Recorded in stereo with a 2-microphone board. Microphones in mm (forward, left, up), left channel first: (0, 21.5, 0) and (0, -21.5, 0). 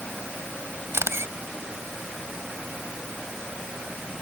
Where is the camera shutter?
70° right (ahead or behind).